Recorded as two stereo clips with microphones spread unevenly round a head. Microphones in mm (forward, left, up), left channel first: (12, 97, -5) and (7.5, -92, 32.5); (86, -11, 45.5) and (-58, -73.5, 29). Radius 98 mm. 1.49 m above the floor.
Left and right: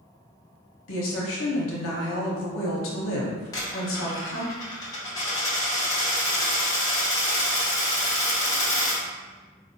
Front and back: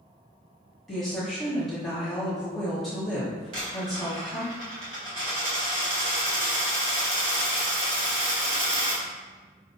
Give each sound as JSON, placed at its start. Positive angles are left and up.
{"t": 0.9, "sound": "a woman speaking", "azimuth_deg": 115, "distance_m": 0.9}
{"t": 3.5, "sound": "a dropped coin", "azimuth_deg": 165, "distance_m": 1.2}